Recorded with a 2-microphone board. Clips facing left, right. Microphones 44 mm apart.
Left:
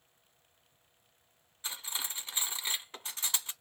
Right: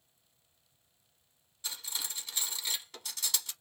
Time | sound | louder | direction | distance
1.6 | cutlery clinking | left 1 dB | 30° left (ahead or behind) | 0.7 m